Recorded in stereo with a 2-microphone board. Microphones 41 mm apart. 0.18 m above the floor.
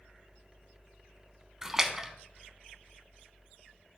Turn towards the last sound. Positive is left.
turn(degrees=-10)  # may be behind; listen again after turning